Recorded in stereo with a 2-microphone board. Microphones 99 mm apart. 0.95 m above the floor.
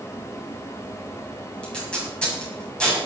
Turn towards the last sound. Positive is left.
turn(degrees=10)  # may be behind; listen again after turning